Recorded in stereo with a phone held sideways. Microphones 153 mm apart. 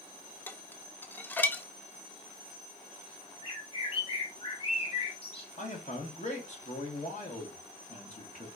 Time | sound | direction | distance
0.5 | dishes clattering | 10° left (ahead or behind) | 0.5 m
3.4 | a bird | 40° left (ahead or behind) | 1.3 m
5.6 | a man speaking | 50° left (ahead or behind) | 1.6 m